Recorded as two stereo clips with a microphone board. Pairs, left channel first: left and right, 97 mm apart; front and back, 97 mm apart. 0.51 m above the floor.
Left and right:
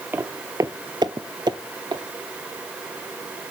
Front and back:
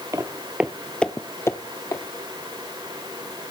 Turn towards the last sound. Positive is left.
turn(degrees=-50)